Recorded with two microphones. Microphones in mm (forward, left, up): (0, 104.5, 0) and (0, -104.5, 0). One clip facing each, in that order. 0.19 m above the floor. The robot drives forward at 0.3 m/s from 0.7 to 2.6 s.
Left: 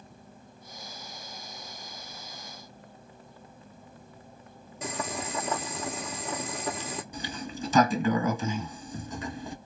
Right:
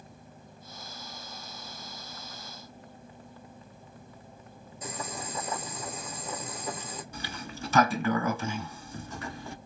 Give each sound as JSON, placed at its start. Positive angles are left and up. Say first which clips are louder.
{"t": 4.8, "sound": "boiling", "louder": "left 4 dB", "side_deg": 70, "distance_m": 0.9}
{"t": 7.1, "sound": "a sliding door", "louder": "left 4 dB", "side_deg": 15, "distance_m": 0.6}